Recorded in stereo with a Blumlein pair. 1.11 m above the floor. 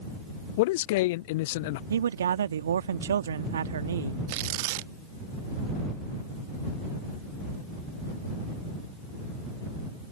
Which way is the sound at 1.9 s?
65° right.